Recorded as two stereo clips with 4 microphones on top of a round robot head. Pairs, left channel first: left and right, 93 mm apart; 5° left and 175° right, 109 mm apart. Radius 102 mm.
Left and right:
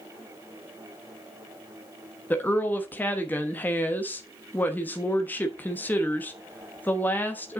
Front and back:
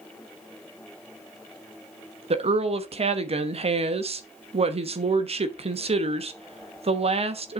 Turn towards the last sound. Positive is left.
turn(degrees=165)